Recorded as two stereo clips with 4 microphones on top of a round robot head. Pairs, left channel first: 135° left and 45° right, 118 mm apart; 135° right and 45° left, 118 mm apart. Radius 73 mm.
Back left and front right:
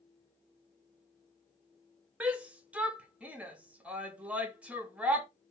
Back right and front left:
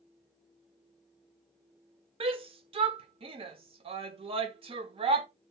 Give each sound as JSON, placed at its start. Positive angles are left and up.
{"t": 2.2, "sound": "a shout", "azimuth_deg": 30, "distance_m": 0.8}